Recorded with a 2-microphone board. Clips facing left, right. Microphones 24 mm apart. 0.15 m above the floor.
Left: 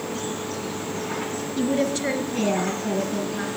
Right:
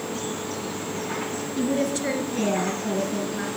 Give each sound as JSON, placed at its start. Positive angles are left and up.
{"t": 1.6, "sound": "a woman speaking", "side_deg": 15, "distance_m": 1.9}